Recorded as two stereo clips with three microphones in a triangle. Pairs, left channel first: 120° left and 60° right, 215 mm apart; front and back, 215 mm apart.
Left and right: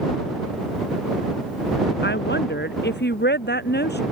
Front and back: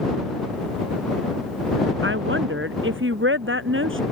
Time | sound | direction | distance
2.0 | a woman speaking | 155° left | ?